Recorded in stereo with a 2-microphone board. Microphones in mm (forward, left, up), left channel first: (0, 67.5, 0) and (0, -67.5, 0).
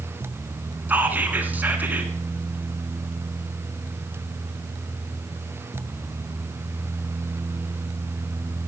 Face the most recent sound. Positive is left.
turn(degrees=-15)  # may be behind; listen again after turning